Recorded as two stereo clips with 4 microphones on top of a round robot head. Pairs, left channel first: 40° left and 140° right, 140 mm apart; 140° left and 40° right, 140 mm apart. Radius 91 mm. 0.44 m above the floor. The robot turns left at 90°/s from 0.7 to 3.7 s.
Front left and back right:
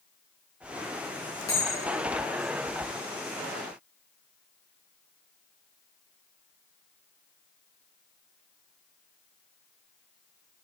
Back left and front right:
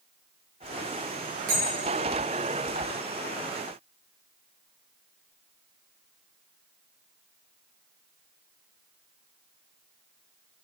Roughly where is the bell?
Ahead right.